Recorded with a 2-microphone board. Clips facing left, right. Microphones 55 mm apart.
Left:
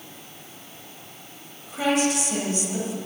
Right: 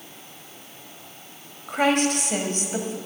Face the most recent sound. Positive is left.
turn(degrees=-45)  # may be behind; listen again after turning